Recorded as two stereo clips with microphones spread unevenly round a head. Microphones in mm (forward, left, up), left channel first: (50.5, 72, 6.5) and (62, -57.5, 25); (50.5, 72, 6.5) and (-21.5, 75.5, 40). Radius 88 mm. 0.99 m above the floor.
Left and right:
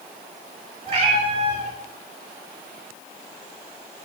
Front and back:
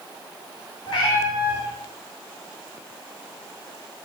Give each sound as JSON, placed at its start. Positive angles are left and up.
{"t": 0.9, "sound": "a cat meowing", "azimuth_deg": -45, "distance_m": 2.5}